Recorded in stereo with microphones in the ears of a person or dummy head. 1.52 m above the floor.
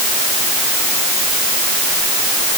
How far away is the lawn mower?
I don't hear a lawn mower.